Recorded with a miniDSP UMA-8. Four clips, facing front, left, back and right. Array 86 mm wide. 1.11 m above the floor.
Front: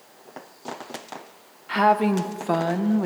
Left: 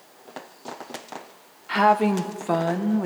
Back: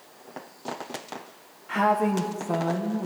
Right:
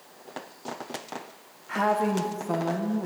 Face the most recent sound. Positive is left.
turn(degrees=35)